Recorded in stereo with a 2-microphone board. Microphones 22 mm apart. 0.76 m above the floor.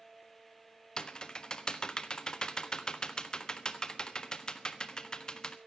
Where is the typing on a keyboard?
40° left (ahead or behind), 1.3 m.